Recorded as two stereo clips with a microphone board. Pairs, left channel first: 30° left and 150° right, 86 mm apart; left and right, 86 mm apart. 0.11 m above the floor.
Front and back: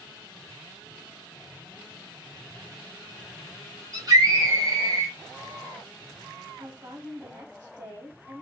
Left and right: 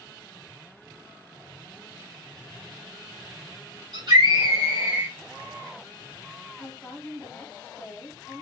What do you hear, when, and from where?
3.9 s a scream: 115° right, 2.5 m; by 5.2 s 140° right, 1.9 m
6.6 s a woman speaking: 165° left, 3.5 m